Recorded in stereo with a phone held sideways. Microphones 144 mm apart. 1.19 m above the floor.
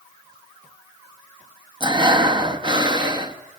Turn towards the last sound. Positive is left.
turn(degrees=-30)  # may be behind; listen again after turning